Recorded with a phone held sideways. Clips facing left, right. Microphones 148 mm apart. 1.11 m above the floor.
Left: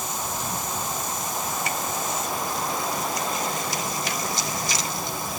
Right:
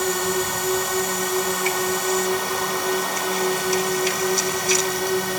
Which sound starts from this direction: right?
A drone, at 0.0 s.